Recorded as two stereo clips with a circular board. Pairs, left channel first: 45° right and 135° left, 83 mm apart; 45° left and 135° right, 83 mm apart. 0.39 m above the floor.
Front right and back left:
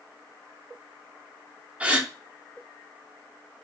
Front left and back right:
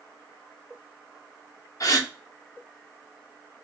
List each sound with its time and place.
1.8 s a gasp: 65° left, 0.7 m